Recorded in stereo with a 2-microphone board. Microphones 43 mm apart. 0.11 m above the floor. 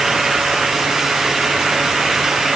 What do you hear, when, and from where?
Only background noise.